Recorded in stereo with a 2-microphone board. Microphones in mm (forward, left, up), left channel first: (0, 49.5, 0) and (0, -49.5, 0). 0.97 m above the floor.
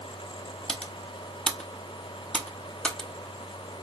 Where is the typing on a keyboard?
10° left (ahead or behind), 0.7 m.